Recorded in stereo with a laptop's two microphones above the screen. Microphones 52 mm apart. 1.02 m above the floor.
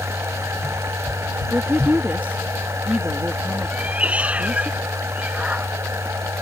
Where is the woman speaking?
30° right (ahead or behind).